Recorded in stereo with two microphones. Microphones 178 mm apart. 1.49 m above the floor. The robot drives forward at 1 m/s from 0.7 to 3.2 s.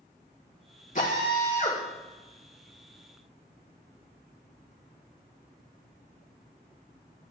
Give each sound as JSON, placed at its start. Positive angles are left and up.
{"t": 0.9, "sound": "a drill", "side_deg": 45, "distance_m": 5.0}